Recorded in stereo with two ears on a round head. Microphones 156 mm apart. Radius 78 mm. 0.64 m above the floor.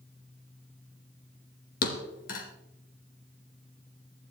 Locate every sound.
1.8 s a thud: 55° left (ahead or behind), 3 m